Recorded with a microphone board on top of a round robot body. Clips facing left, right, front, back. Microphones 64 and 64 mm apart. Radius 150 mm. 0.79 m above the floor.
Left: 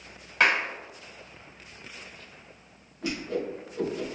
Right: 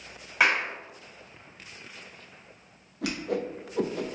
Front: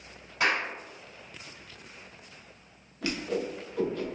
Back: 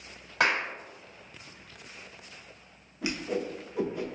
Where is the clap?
170° right, 1.7 m.